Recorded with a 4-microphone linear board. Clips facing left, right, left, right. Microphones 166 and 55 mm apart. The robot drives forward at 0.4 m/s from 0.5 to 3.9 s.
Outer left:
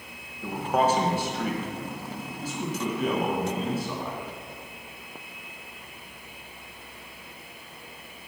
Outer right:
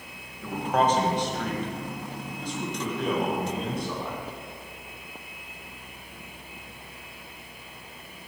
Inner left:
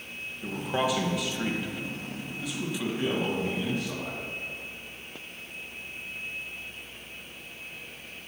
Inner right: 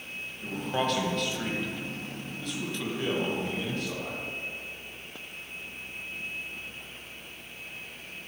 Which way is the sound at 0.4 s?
10° left (ahead or behind).